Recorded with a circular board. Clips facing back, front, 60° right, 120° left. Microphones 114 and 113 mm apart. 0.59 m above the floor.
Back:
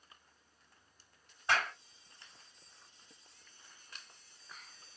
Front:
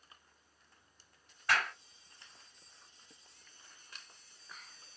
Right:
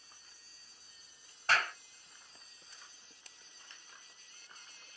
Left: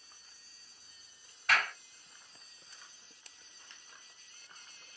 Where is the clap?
115° right, 1.9 m.